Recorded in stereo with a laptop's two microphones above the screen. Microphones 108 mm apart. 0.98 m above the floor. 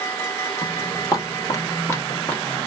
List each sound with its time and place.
0.6 s footsteps: 35° left (ahead or behind), 1.3 m; by 2.7 s 10° left (ahead or behind), 1.1 m